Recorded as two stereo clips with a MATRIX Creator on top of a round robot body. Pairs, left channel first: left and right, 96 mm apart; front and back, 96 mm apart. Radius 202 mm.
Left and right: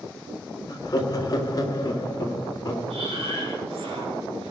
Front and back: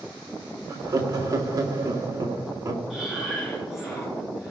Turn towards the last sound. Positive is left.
turn(degrees=-95)